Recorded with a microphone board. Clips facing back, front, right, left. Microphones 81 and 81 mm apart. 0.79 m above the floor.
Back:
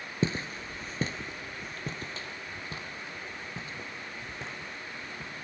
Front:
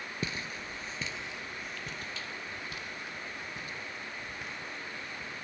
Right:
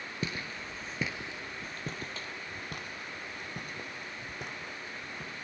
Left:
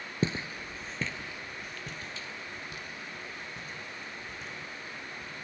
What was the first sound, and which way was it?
Footsteps, 135° left.